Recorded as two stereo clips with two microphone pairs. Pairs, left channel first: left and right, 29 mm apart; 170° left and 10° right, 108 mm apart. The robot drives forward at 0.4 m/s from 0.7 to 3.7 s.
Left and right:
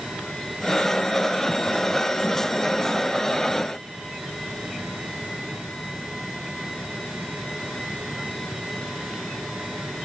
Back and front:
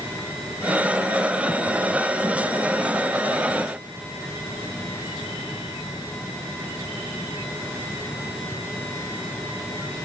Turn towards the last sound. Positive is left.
No sound to turn to.